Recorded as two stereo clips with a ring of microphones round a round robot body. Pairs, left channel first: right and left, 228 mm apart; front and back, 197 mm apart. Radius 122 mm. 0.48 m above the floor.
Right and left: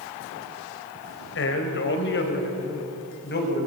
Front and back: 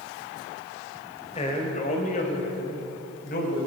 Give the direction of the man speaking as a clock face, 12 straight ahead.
2 o'clock.